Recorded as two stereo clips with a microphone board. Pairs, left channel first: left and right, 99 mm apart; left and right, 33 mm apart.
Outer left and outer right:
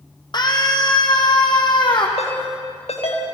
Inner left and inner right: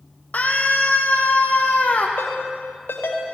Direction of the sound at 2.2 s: 85° left.